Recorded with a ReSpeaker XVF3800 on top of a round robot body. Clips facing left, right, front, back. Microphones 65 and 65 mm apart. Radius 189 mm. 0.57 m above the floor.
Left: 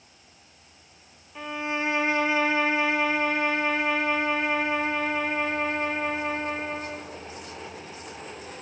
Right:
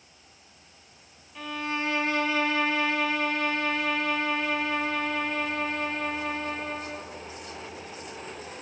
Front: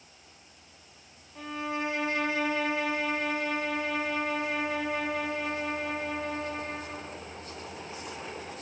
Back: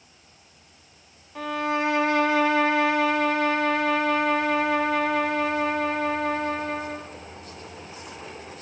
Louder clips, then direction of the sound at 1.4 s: Left 2 dB, back 8 dB; 160° left.